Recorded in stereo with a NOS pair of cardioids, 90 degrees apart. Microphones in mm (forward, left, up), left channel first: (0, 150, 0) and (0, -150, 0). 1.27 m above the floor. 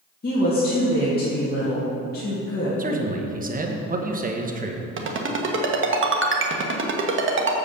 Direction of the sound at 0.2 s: 30° left.